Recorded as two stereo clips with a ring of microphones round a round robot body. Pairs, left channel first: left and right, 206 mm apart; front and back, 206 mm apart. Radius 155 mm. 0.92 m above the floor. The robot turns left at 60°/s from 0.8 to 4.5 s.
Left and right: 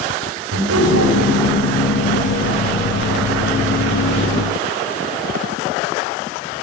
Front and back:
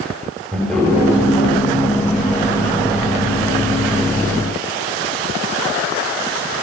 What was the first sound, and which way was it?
Laughter, 90° right.